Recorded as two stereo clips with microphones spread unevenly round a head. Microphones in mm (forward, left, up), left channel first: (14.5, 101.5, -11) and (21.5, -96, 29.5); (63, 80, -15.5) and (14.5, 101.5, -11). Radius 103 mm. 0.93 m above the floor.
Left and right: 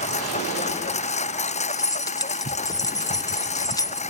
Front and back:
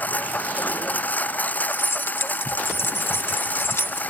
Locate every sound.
0.0 s a lawn mower: 35° left
1.7 s keys jangling: 20° left